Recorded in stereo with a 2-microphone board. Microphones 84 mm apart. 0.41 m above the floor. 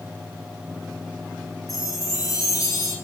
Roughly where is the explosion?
No explosion in this recording.